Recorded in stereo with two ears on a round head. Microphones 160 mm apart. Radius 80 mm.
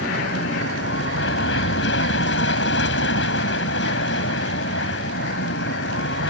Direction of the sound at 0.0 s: 70° left (ahead or behind).